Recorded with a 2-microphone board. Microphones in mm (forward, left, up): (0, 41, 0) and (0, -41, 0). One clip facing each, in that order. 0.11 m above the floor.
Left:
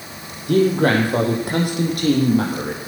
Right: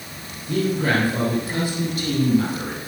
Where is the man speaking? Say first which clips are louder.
Left 6 dB; 70° left (ahead or behind), 4.5 m; by 2.8 s 55° left (ahead or behind), 4.5 m.